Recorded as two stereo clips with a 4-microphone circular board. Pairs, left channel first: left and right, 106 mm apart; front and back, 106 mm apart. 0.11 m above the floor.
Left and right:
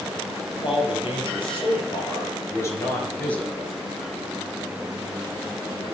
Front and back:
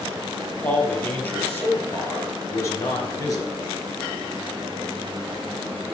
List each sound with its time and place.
0.6 s a man speaking: 75° left, 2 m; by 3.7 s 5° left, 1.3 m